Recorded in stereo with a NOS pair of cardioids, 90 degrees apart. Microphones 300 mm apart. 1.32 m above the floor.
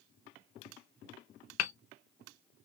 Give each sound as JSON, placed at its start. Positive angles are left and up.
{"t": 1.6, "sound": "hammering", "azimuth_deg": 65, "distance_m": 0.7}